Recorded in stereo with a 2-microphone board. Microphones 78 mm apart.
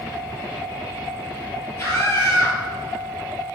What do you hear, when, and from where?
1.8 s a scream: 35° left (ahead or behind), 2.5 m